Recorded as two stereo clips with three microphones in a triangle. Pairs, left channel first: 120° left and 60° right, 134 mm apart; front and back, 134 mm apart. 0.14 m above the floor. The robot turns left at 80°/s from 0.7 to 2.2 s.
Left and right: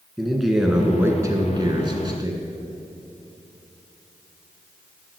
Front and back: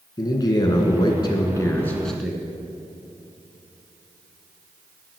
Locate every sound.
0.2 s a man speaking: 25° left, 1.7 m; by 2.4 s 95° right, 1.7 m